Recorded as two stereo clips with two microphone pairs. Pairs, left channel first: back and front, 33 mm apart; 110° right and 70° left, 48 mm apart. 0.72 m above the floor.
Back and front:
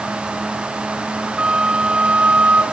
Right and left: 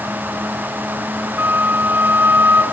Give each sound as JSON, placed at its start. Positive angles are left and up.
{"t": 1.4, "sound": "a flute", "azimuth_deg": 35, "distance_m": 2.5}